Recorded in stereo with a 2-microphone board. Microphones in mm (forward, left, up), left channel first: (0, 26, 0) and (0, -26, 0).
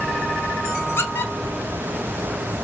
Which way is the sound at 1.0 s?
50° left (ahead or behind).